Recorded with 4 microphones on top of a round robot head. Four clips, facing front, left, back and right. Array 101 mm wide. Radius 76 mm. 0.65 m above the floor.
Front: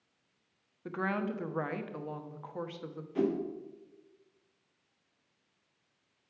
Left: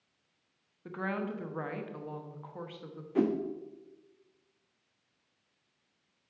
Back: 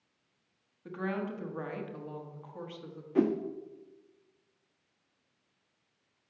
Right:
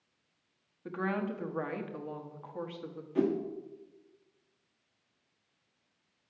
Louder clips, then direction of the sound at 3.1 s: Left 1 dB, back 3 dB; 150° left.